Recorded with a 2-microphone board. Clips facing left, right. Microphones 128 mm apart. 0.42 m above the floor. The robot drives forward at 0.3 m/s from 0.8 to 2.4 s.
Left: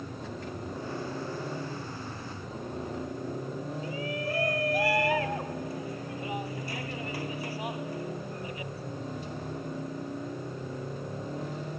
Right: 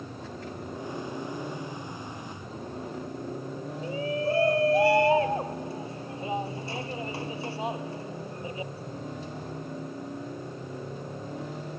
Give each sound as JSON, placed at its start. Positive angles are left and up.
{"t": 3.8, "sound": "a shout", "side_deg": -30}